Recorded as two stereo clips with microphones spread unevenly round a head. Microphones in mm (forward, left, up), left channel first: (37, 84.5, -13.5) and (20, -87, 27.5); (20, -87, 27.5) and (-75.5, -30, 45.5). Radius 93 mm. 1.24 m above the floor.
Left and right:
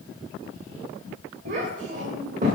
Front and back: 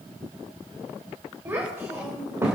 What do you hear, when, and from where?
1.4 s a child speaking: 145° right, 3.5 m; by 2.6 s 150° right, 3 m